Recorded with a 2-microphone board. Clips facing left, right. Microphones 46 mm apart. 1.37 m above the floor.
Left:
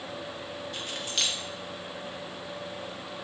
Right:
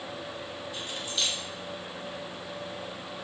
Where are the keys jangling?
75° left (ahead or behind), 1.4 m.